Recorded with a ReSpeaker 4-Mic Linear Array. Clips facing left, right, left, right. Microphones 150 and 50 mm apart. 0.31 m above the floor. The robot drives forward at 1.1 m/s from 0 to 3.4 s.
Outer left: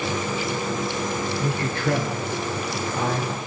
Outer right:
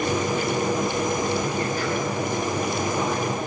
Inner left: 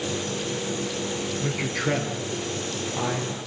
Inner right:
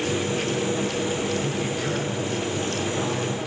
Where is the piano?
I don't hear a piano.